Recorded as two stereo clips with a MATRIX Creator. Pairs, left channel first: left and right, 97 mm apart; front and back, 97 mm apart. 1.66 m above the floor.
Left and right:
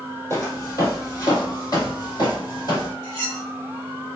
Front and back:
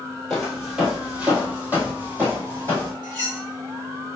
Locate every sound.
0.3 s footsteps: 80° left, 1.8 m; by 2.9 s 125° left, 3 m
3.0 s cutlery clinking: 145° left, 1.6 m